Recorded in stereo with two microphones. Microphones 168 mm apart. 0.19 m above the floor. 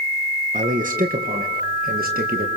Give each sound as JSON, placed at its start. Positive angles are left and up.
{"t": 0.5, "sound": "a man speaking", "side_deg": -50, "distance_m": 3.0}